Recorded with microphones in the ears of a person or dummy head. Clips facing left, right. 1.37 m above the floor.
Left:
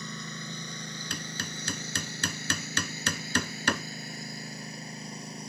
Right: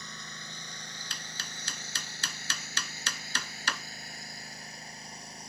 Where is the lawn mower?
70° left (ahead or behind).